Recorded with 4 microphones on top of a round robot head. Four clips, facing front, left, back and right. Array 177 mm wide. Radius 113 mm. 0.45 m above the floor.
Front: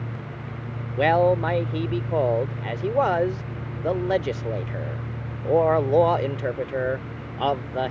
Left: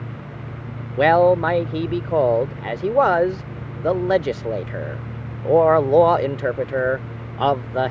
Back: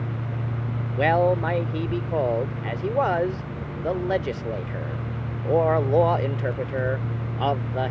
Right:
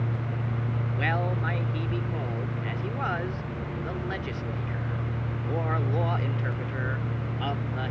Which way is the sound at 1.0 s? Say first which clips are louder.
Left 17 dB, front 1 dB; 85° left.